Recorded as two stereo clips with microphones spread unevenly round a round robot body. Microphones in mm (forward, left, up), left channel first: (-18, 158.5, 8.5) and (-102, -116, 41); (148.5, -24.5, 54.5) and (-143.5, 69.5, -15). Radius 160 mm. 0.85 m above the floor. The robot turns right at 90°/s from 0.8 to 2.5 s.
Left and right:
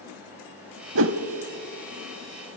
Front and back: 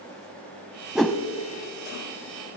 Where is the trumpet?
No trumpet in this recording.